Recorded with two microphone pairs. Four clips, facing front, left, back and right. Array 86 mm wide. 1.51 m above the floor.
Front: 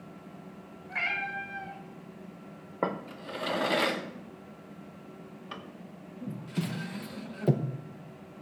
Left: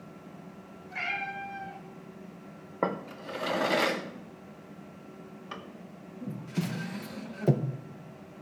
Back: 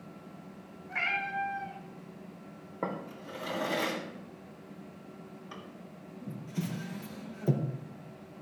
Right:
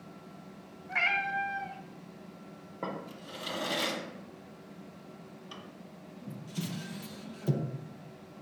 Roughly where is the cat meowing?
Right.